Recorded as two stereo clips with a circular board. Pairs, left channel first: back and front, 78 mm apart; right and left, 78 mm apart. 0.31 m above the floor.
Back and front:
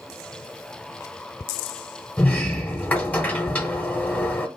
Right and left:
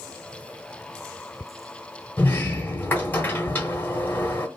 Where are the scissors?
I don't hear scissors.